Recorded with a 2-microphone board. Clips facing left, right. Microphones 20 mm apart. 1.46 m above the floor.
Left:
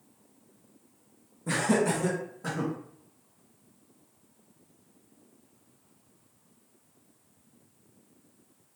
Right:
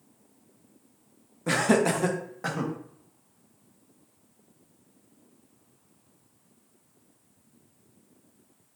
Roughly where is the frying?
I don't hear frying.